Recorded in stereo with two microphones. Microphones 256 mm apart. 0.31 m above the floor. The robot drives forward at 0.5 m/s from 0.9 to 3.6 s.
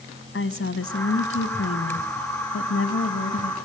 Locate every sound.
0.3 s a woman speaking: 55° left (ahead or behind), 2.0 m